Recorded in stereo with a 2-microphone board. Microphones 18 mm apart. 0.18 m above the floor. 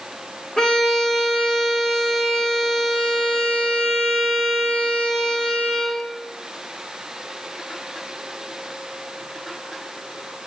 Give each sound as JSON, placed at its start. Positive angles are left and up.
{"t": 0.6, "sound": "a violin", "side_deg": 45, "distance_m": 7.5}